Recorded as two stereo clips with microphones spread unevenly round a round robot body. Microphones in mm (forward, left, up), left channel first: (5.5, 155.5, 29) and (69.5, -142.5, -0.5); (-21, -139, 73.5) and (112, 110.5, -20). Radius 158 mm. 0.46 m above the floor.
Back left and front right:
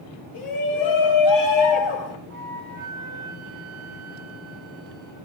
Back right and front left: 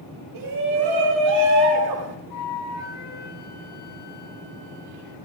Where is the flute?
135° right, 5 m.